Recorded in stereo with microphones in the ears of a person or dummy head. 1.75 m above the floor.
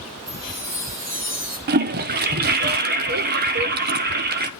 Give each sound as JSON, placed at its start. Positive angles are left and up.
{"t": 0.3, "sound": "a chime", "side_deg": -45, "distance_m": 6.5}
{"t": 1.7, "sound": "a toilet flushing", "side_deg": -55, "distance_m": 1.0}